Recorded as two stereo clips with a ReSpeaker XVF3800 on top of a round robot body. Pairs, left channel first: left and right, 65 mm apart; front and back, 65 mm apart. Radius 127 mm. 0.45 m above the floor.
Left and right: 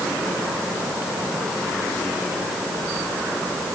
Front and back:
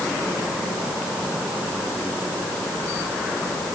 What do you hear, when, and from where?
Only background noise.